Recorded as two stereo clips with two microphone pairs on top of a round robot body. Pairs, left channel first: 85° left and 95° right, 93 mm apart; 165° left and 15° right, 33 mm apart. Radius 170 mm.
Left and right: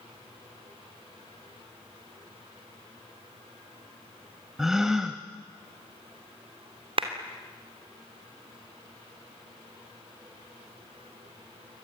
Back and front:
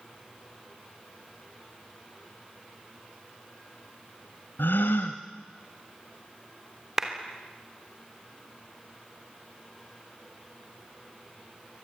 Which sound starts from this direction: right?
A clap, at 7.0 s.